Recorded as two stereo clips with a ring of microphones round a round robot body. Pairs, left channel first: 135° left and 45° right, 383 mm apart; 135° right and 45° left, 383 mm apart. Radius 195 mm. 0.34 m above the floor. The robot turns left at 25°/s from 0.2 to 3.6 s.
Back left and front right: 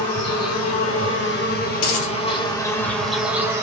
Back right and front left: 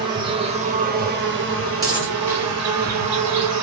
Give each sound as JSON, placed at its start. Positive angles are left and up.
{"t": 0.0, "sound": "an insect", "azimuth_deg": 120, "distance_m": 3.0}
{"t": 1.8, "sound": "a dropped coin", "azimuth_deg": 130, "distance_m": 3.5}